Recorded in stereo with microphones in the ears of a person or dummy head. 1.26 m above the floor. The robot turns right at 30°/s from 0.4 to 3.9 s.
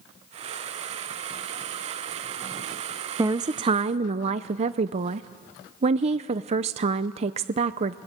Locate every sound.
3.2 s a woman speaking: 15° right (ahead or behind), 0.5 m; by 8.0 s 35° right (ahead or behind), 0.5 m